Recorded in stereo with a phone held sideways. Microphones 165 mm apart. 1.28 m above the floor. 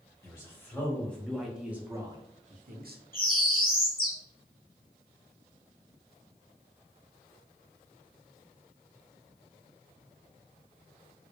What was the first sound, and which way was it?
A man speaking, 20° left (ahead or behind).